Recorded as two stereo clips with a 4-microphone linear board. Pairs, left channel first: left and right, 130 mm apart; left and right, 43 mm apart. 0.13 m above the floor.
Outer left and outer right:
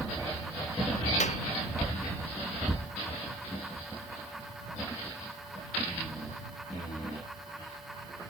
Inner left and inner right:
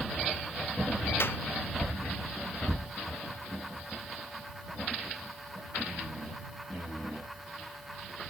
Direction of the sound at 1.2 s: 65° left (ahead or behind).